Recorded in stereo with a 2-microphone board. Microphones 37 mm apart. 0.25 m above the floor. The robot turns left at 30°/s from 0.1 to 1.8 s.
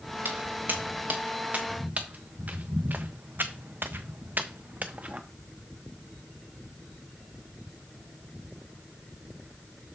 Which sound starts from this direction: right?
Footsteps, at 0.2 s.